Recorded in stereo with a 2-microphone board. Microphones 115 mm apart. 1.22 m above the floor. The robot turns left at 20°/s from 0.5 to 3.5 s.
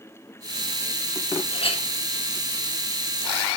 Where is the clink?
50° left (ahead or behind), 1.4 m; by 1.9 s 60° left (ahead or behind), 1.4 m.